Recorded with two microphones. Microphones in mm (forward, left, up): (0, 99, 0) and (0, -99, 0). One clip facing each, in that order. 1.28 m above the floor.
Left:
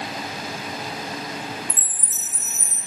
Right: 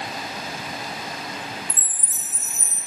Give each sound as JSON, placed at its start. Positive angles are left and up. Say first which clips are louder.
{"t": 1.7, "sound": "a chime", "louder": "left 2 dB", "side_deg": -55, "distance_m": 1.1}